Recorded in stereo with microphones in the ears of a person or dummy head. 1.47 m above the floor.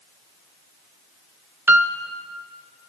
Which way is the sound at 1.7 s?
5° right (ahead or behind).